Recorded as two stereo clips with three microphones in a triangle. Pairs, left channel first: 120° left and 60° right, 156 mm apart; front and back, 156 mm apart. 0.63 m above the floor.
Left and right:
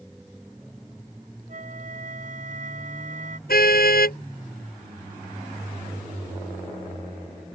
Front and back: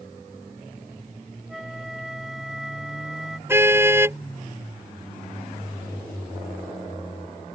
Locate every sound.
1.5 s a flute: 90° right
3.5 s a car horn: 105° left